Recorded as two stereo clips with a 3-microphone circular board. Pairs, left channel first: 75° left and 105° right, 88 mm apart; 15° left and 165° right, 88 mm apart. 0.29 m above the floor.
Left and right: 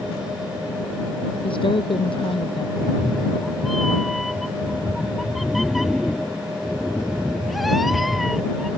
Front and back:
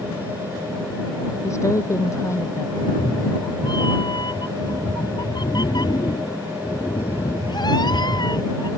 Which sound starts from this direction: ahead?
A cat meowing, at 2.8 s.